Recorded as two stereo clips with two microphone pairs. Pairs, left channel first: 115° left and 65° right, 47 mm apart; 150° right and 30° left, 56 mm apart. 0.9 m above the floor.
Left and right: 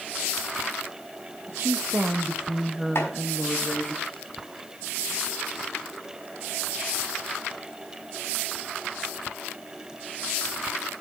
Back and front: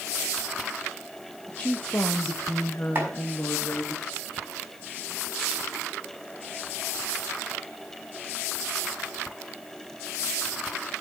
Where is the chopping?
85° left, 6 m.